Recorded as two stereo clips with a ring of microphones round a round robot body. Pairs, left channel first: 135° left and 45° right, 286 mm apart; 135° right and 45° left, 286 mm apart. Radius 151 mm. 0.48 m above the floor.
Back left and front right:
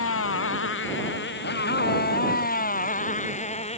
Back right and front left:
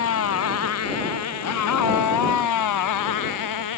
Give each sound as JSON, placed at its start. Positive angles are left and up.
{"t": 0.0, "sound": "a motorcycle", "azimuth_deg": 180}